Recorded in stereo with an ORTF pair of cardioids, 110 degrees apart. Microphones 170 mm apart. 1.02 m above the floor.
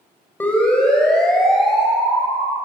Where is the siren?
10° left, 7 m; by 2.6 s 5° right, 9 m.